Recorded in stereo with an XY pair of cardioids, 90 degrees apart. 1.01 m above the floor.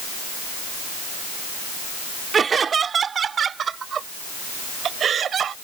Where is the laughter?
45° right; by 5.5 s 65° right.